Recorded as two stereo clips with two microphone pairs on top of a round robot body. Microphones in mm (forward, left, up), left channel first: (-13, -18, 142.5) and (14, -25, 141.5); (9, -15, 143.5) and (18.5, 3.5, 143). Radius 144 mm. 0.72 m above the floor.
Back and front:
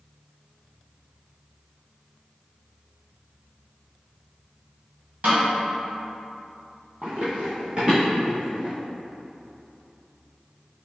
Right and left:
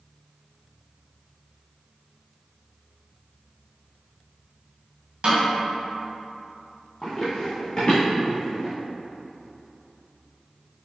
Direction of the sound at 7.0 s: 45° right.